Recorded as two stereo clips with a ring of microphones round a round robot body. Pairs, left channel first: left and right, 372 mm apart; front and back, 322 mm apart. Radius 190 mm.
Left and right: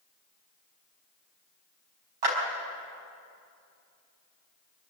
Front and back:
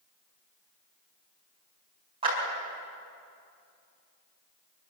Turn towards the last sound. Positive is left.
turn(degrees=-105)